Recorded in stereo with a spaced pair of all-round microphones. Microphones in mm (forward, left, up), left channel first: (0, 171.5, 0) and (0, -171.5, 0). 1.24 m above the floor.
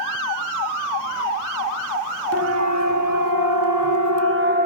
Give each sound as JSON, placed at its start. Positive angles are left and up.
{"t": 2.3, "sound": "a siren", "side_deg": -45, "distance_m": 2.5}